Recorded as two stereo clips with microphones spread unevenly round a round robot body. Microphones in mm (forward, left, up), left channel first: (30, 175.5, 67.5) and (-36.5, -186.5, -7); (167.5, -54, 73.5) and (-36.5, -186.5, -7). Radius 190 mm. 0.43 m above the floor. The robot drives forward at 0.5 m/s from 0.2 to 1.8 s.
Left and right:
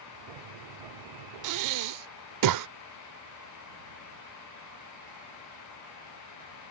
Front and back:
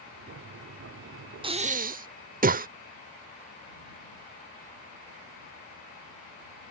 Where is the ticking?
No ticking in this recording.